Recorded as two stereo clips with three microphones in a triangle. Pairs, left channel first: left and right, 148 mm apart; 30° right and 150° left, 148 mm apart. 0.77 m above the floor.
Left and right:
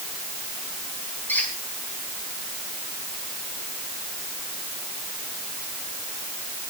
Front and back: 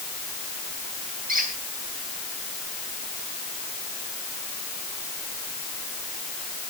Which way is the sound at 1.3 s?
170° left.